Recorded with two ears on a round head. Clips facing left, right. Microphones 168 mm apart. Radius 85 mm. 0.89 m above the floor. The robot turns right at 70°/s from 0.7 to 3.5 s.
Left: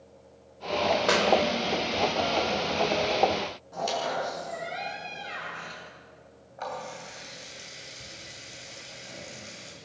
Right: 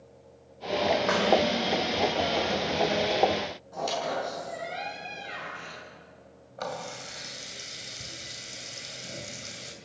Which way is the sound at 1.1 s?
40° left (ahead or behind).